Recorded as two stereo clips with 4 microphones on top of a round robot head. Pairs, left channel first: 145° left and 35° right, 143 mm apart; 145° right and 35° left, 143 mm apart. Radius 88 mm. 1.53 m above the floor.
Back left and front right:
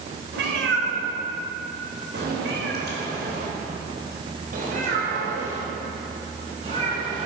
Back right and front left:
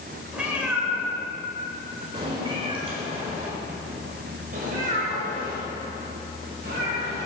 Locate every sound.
0.3 s a cat meowing: 50° right, 4 m; by 7.3 s 15° left, 6 m